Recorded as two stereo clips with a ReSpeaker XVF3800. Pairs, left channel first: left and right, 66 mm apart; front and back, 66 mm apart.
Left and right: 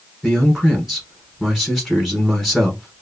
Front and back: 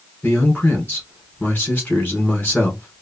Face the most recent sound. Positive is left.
turn(degrees=-5)